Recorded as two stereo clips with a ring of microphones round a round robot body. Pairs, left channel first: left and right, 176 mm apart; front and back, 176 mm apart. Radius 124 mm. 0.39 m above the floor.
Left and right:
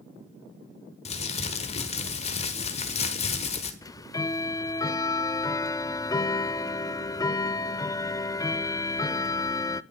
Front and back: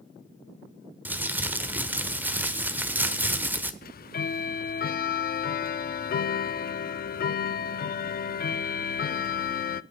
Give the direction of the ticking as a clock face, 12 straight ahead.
11 o'clock.